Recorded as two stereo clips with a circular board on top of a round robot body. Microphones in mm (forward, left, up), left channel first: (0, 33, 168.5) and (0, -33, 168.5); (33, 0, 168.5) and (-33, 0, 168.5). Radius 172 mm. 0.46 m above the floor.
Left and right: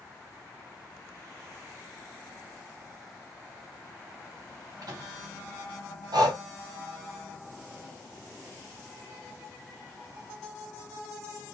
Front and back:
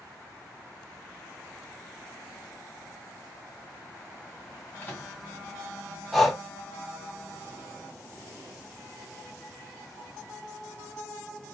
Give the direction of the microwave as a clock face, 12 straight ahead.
2 o'clock.